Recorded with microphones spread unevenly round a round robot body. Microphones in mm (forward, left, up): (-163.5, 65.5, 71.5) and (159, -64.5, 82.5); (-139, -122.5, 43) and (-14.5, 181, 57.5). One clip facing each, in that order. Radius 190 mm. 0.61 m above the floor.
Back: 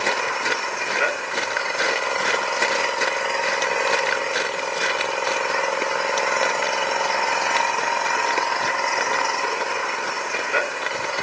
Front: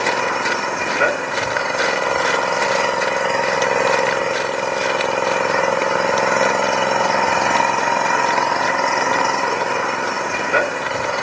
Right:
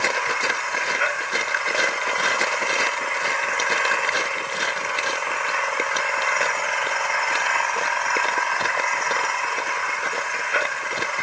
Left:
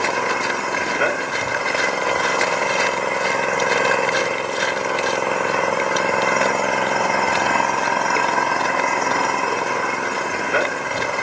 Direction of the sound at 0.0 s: 15° left.